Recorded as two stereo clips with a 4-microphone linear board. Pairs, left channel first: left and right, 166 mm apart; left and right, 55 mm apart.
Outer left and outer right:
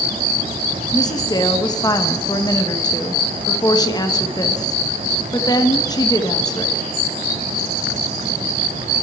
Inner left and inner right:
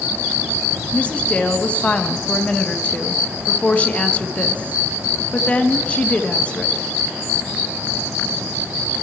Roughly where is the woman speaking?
Left.